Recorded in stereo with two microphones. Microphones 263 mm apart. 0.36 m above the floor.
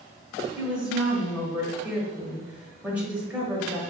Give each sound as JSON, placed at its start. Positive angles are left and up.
{"t": 0.6, "sound": "a woman speaking", "side_deg": -5, "distance_m": 1.7}